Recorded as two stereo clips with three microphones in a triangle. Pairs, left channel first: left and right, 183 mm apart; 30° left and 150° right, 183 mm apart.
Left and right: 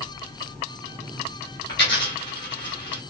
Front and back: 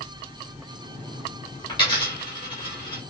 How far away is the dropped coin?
About 1.9 m.